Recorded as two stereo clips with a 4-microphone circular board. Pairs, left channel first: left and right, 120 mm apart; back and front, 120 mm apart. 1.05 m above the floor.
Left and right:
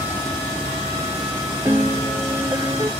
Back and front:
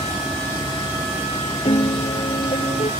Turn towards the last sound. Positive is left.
turn(degrees=-155)